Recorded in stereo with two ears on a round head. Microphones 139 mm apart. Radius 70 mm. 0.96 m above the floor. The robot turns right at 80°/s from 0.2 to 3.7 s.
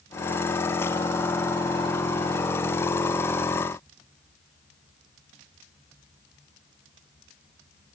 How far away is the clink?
No clink in this recording.